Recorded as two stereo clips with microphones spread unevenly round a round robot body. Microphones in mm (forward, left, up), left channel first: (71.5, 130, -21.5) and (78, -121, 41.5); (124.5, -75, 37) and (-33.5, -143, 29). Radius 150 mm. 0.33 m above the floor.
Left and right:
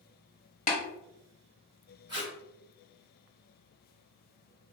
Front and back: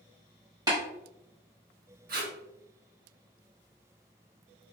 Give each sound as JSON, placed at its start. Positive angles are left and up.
{"t": 0.7, "sound": "tapping", "azimuth_deg": 140, "distance_m": 0.9}
{"t": 2.1, "sound": "tape being pulled", "azimuth_deg": -170, "distance_m": 1.0}